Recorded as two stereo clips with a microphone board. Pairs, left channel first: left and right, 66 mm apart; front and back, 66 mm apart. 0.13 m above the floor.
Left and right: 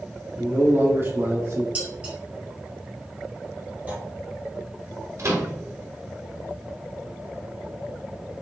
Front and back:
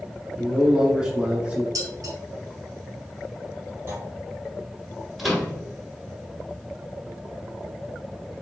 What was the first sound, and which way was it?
A man speaking, 95° right.